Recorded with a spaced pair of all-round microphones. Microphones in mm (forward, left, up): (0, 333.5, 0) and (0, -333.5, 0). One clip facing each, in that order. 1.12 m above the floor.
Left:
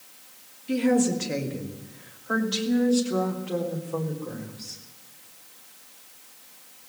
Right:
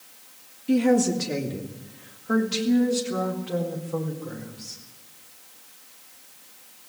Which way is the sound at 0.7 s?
65° right (ahead or behind).